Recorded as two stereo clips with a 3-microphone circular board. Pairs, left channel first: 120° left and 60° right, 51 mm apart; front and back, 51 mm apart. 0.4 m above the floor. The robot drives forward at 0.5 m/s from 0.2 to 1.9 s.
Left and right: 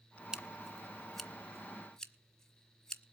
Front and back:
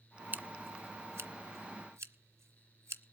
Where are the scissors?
135° right, 0.5 m; by 3.0 s 165° right, 1.2 m.